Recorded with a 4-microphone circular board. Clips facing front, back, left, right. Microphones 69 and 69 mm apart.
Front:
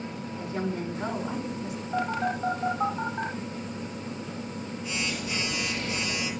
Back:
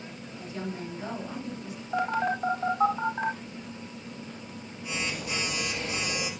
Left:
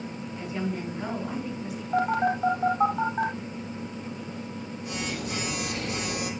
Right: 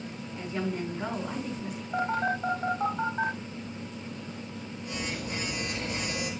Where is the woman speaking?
5° left, 5 m.